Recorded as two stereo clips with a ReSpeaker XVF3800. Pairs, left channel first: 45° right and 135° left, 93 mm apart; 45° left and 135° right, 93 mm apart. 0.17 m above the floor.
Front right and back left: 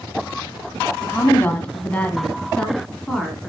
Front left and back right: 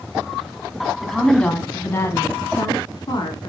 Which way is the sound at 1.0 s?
45° right.